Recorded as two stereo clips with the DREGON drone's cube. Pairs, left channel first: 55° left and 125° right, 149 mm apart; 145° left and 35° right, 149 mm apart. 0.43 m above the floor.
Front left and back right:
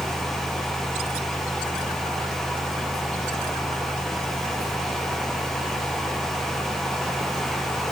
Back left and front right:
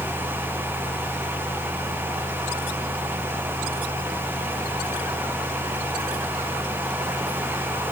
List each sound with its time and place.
Only background noise.